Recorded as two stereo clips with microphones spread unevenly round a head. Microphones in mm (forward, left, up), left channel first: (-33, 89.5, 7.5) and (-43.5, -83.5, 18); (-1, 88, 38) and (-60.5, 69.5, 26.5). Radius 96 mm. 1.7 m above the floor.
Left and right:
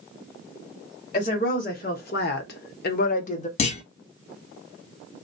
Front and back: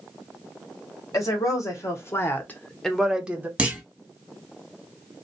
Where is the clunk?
120° left, 1.1 m.